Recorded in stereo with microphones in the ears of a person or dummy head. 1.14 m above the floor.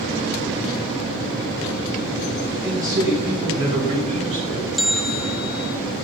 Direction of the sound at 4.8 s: Centre (ahead or behind).